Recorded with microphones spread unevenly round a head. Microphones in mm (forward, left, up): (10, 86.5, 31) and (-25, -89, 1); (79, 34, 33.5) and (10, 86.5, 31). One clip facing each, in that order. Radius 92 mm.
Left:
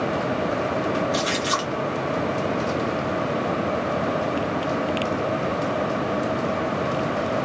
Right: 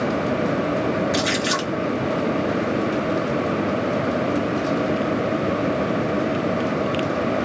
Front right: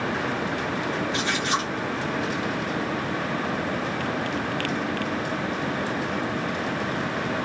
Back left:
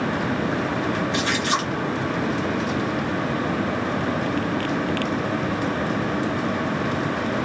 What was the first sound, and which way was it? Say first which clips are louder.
A splash: right 2 dB, back left 3 dB; 165° right.